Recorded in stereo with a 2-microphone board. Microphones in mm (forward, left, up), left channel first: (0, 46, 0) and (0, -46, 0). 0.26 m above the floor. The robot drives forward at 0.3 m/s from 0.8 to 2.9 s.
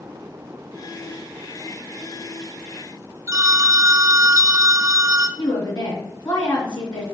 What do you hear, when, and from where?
3.3 s a phone ringing: 30° right (ahead or behind), 0.6 m
5.4 s a woman speaking: 50° left (ahead or behind), 2 m